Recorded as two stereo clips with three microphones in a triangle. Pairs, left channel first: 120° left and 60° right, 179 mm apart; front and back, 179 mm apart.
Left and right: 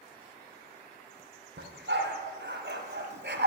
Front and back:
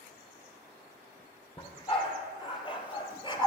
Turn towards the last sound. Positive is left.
turn(degrees=-60)